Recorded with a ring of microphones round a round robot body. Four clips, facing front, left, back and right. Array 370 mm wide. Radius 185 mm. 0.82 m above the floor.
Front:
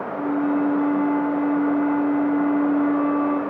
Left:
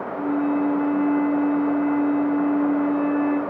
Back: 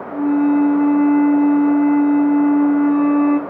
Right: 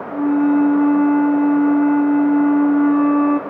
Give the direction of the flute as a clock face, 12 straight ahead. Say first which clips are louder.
Right 8 dB, back 7 dB; 4 o'clock.